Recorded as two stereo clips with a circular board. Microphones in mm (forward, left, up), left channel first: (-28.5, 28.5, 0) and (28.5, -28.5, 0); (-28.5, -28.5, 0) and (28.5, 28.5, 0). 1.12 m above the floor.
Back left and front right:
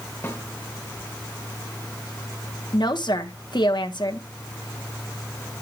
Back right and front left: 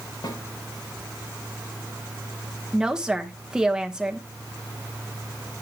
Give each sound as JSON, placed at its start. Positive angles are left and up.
{"t": 0.2, "sound": "a snare drum", "azimuth_deg": -160, "distance_m": 2.5}
{"t": 2.7, "sound": "a woman speaking", "azimuth_deg": 125, "distance_m": 1.0}